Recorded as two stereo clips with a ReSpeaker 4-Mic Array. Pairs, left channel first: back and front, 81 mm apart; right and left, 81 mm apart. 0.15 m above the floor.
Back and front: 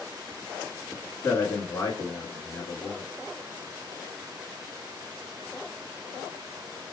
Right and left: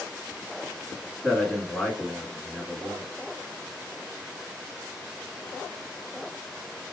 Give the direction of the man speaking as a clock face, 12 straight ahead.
5 o'clock.